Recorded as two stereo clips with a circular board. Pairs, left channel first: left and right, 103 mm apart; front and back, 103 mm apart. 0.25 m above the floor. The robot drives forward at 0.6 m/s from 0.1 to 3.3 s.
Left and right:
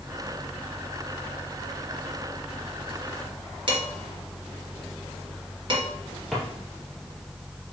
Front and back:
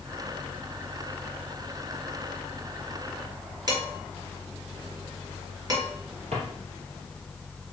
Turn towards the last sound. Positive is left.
turn(degrees=180)